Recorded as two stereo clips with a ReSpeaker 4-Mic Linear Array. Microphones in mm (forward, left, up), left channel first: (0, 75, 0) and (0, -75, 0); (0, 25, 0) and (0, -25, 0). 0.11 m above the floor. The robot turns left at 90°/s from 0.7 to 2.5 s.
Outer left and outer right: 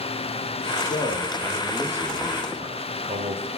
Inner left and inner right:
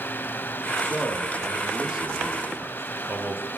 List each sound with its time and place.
0.8 s a man speaking: 80° left, 2 m; by 3.5 s 70° right, 2 m